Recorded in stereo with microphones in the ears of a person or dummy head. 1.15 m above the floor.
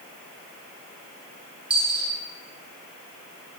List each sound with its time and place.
1.7 s a dropped coin: 5° right (ahead or behind), 0.7 m